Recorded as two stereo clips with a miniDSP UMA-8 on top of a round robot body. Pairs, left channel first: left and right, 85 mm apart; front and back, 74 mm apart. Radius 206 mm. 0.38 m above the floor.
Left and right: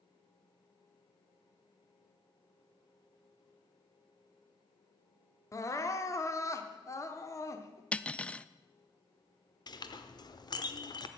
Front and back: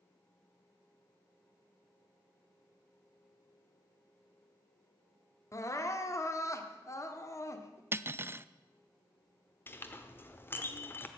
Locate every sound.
5.5 s crying: 40° left, 1.2 m
7.9 s cutlery clinking: 155° left, 0.6 m
9.7 s a clink: 60° left, 1.0 m